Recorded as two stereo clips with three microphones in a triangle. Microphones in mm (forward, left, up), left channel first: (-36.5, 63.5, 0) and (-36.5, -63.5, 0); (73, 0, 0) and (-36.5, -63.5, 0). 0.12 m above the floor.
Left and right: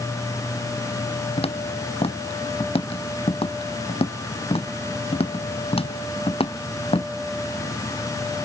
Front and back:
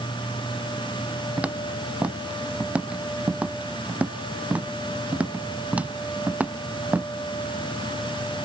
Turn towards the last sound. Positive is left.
turn(degrees=130)